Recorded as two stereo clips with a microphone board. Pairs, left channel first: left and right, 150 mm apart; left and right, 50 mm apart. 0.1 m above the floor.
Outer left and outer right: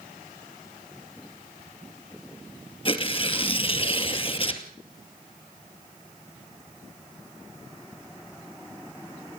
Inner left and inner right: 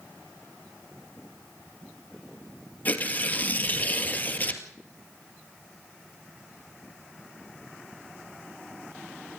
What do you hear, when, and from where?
2.9 s tearing paper: 35° left (ahead or behind), 2 m